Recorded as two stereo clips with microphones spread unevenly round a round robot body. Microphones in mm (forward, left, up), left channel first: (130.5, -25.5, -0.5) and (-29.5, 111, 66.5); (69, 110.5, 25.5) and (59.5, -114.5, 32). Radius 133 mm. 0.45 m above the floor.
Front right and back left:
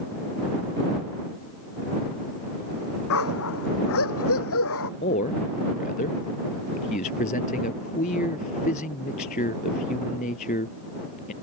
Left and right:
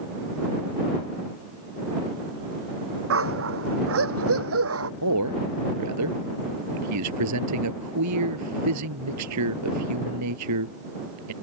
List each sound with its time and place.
3.1 s a dog barking: 70° right
5.0 s a man speaking: 100° right